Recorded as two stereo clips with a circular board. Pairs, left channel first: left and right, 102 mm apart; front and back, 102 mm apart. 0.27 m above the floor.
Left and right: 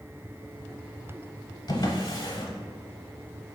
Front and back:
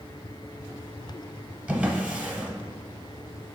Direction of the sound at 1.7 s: 110° left.